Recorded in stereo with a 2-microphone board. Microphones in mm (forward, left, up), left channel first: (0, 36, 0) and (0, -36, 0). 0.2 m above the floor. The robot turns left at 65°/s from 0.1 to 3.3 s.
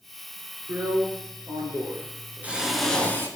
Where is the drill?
45° right, 3 m; by 3.3 s 145° left, 3 m.